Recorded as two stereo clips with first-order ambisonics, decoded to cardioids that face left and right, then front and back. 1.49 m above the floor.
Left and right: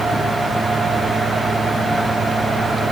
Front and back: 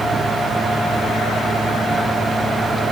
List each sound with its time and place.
Only background noise.